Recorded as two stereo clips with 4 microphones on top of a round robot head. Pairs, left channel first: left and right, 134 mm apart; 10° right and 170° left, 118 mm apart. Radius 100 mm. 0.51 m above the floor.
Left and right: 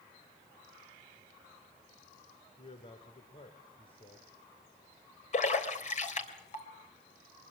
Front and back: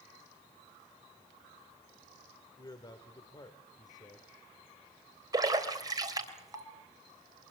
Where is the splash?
115° left, 3.5 m.